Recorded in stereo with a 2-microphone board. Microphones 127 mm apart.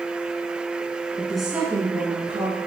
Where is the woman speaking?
15° left (ahead or behind), 1.2 m; by 2.6 s 55° right (ahead or behind), 2 m.